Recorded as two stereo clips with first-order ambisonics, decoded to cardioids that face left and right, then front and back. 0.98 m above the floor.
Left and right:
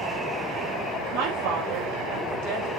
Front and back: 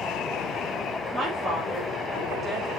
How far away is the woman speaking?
About 3.5 m.